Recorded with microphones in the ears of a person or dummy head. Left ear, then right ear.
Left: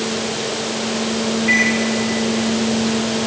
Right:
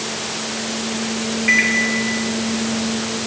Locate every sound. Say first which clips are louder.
1.5 s a microwave: right 1 dB; 25° right (ahead or behind), 2.5 m